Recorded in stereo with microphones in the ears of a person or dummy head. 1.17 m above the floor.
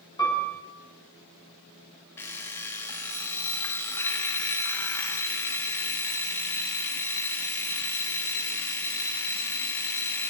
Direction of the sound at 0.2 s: 20° left (ahead or behind).